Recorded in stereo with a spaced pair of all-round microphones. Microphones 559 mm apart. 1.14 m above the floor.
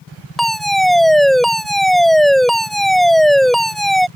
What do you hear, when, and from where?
0.4 s a fire alarm: centre (ahead or behind)